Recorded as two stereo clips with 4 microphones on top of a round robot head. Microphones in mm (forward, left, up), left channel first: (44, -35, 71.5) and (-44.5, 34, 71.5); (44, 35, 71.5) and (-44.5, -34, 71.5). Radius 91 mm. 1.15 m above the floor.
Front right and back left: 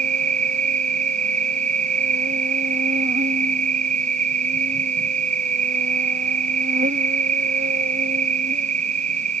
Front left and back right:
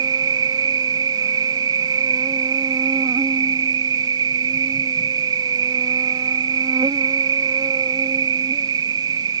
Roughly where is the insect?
Behind.